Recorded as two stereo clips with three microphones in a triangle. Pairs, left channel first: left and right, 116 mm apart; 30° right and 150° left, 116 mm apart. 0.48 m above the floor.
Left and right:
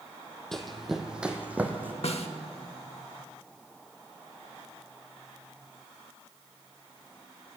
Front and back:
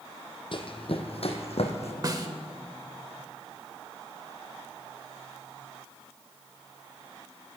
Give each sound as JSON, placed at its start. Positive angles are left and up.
{"t": 0.5, "sound": "running footsteps", "azimuth_deg": 5, "distance_m": 1.3}
{"t": 2.0, "sound": "a snare drum", "azimuth_deg": 100, "distance_m": 0.8}